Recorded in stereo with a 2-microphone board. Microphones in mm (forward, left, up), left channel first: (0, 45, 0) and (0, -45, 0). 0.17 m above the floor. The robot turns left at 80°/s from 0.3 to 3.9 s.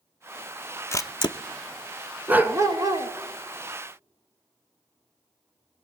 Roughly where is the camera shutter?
Left.